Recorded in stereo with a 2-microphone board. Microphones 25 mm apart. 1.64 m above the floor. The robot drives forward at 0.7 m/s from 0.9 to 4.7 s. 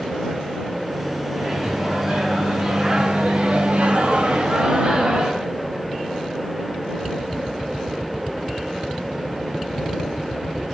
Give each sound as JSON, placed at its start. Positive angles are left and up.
{"t": 1.3, "sound": "a microwave", "side_deg": -20, "distance_m": 1.9}